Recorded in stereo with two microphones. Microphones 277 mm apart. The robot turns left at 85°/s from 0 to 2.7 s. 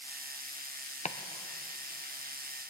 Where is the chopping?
25° left (ahead or behind), 0.7 m; by 2.7 s 50° right (ahead or behind), 0.7 m.